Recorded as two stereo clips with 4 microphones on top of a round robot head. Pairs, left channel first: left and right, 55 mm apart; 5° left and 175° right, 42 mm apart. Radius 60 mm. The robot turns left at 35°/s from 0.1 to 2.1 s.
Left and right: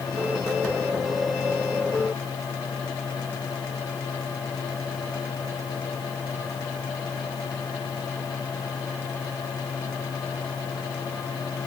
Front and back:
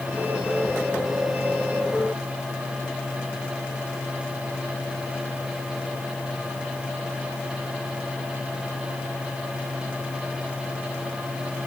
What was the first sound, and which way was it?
Only background noise.